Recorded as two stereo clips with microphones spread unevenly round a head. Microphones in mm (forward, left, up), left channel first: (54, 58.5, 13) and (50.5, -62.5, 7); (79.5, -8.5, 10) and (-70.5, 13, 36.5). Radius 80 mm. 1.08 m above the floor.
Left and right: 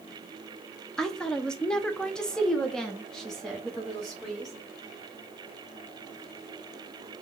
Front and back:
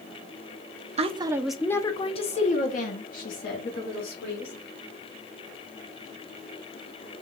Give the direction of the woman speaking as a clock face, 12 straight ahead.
6 o'clock.